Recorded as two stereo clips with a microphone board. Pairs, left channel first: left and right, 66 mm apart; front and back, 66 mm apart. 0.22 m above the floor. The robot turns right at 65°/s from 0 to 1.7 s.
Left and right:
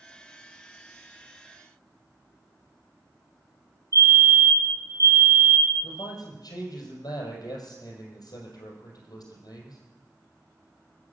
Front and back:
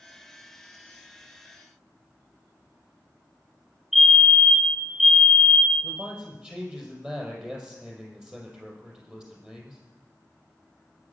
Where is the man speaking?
105° left, 6 m.